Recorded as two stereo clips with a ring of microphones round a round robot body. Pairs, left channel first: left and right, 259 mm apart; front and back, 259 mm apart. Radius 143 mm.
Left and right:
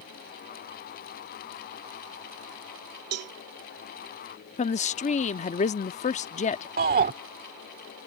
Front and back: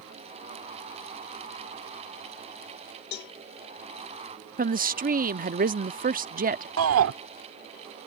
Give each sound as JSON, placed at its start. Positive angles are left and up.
{"t": 3.1, "sound": "a cowbell", "azimuth_deg": -55}
{"t": 4.6, "sound": "a woman speaking", "azimuth_deg": 140}
{"t": 6.8, "sound": "a shout", "azimuth_deg": -145}